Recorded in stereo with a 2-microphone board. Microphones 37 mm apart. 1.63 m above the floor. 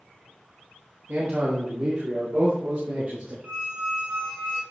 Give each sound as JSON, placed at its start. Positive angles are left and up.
{"t": 1.1, "sound": "a man speaking", "side_deg": -70, "distance_m": 2.0}
{"t": 3.4, "sound": "a squeak", "side_deg": -75, "distance_m": 3.0}